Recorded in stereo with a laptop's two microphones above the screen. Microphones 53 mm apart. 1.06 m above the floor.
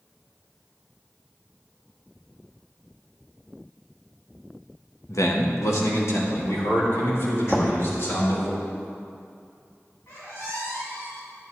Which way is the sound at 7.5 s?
10° left (ahead or behind).